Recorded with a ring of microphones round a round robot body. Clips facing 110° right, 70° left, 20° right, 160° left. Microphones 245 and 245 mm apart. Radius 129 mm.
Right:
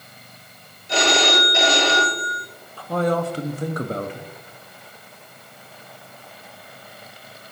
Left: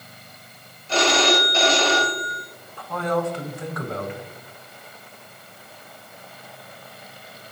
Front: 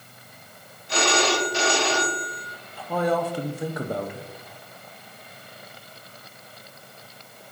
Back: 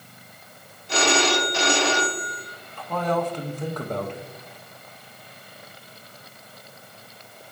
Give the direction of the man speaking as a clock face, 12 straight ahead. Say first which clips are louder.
Right 3 dB, front 1 dB; 3 o'clock.